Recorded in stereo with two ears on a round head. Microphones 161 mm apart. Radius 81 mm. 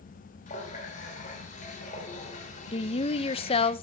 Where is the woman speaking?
30° left (ahead or behind), 0.6 m.